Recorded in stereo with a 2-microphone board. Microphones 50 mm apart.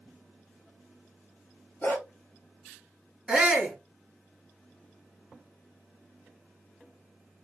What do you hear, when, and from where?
1.8 s a dog barking: 40° left (ahead or behind), 1.1 m
3.3 s a shout: 20° right (ahead or behind), 1.5 m